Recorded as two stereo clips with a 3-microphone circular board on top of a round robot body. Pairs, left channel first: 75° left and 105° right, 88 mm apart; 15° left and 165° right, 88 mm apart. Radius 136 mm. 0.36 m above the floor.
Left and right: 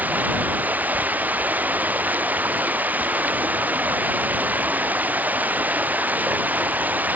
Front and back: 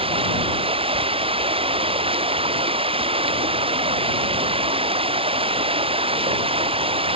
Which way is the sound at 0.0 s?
Straight behind.